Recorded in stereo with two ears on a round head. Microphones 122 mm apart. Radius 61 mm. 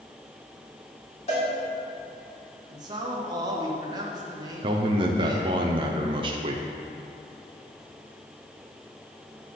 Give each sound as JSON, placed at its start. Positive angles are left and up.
{"t": 1.3, "sound": "a cowbell", "side_deg": 50, "distance_m": 2.5}
{"t": 2.7, "sound": "a man speaking", "side_deg": -30, "distance_m": 1.2}
{"t": 4.6, "sound": "a man speaking", "side_deg": -40, "distance_m": 0.6}